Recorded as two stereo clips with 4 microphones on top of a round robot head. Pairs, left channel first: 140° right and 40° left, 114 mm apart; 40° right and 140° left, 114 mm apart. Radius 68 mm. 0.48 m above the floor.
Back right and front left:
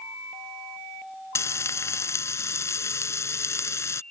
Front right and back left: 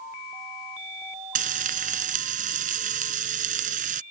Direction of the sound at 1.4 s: 155° left.